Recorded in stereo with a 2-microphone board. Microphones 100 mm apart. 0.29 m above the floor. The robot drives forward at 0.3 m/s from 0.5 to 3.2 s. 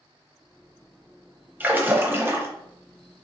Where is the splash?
20° right (ahead or behind), 0.6 m; by 2.5 s 25° right (ahead or behind), 0.5 m.